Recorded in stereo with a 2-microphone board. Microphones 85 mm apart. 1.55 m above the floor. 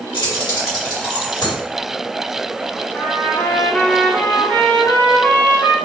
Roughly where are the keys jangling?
Left.